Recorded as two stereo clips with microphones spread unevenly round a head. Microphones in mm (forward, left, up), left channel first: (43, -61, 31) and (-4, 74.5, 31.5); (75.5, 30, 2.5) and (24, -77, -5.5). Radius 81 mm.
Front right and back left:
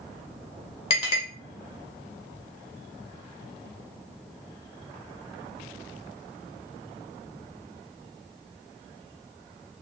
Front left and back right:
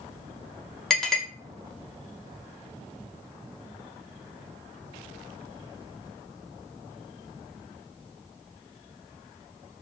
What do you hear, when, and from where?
0.9 s a clink: 20° right, 1.1 m